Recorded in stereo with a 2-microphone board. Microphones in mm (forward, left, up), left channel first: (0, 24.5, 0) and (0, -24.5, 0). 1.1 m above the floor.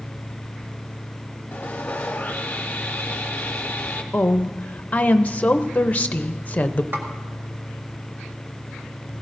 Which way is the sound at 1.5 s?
30° left (ahead or behind).